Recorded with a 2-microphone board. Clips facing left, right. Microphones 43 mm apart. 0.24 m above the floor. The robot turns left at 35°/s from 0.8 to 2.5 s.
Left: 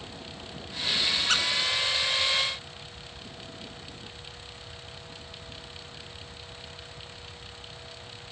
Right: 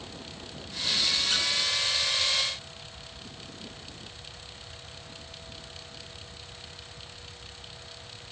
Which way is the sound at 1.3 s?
65° left (ahead or behind).